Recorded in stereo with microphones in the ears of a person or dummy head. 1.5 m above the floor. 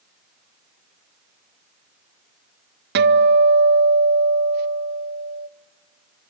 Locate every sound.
3.0 s a guitar: 55° right (ahead or behind), 0.6 m